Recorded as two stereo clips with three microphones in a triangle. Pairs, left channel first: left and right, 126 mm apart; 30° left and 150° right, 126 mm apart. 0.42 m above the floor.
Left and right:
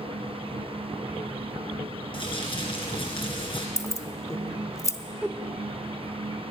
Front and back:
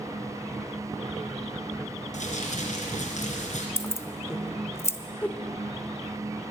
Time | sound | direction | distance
2.1 | crumpling | 45° left | 2.5 m
3.8 | keys jangling | 70° left | 0.7 m
5.2 | a whoosh | 35° right | 0.5 m